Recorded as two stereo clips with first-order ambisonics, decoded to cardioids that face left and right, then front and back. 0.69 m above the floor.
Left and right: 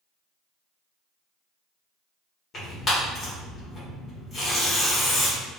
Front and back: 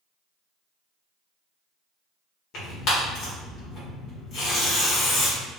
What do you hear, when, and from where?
2.5 s tearing paper: 30° left, 1.6 m